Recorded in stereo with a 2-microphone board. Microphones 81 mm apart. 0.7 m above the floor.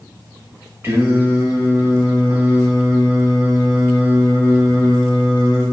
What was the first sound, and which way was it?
Singing, 30° right (ahead or behind).